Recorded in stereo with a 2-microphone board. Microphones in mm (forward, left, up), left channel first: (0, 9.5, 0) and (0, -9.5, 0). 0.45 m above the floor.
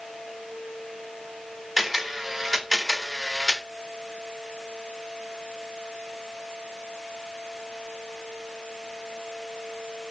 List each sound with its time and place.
1.8 s a camera shutter: centre (ahead or behind), 1.3 m